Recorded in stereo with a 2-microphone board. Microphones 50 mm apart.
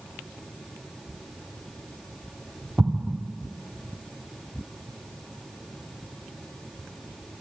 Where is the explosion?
30° right (ahead or behind), 1.7 m.